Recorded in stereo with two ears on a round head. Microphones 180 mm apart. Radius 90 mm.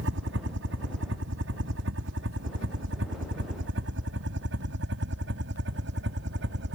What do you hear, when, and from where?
0.0 s a helicopter: 65° right (ahead or behind); by 6.8 s 60° right (ahead or behind)